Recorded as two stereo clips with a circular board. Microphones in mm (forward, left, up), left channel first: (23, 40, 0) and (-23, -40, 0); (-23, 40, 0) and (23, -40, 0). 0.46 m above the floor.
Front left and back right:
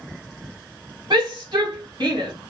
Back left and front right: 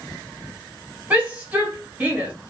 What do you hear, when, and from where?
1.1 s a shout: 130° right, 1.5 m